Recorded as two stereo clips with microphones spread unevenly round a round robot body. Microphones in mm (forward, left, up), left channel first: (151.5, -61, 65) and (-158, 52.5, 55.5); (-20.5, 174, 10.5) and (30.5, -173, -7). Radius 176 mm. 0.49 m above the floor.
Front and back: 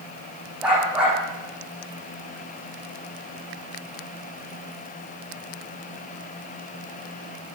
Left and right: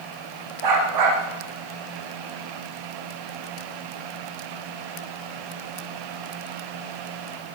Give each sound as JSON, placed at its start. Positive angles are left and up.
{"t": 0.6, "sound": "a dog barking", "azimuth_deg": -115, "distance_m": 9.5}